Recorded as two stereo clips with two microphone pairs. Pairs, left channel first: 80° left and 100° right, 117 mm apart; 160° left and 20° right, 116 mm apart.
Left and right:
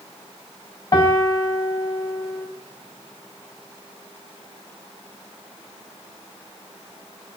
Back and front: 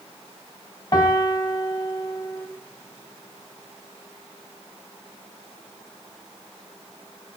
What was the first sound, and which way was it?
A piano, 120° left.